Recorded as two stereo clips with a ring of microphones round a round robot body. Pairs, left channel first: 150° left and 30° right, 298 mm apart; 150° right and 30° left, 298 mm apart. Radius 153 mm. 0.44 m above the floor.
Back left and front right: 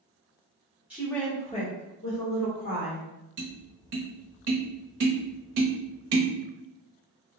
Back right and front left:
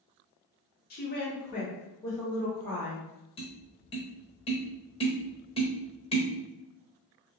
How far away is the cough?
I don't hear a cough.